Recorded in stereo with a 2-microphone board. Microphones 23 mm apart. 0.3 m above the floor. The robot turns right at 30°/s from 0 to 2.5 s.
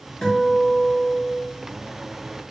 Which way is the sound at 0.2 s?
125° left.